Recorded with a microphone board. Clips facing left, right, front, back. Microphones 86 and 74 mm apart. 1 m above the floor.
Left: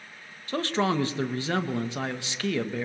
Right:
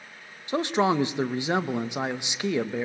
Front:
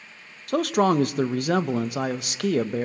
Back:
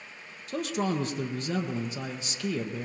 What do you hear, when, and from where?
0.5 s a man speaking: 20° right, 0.6 m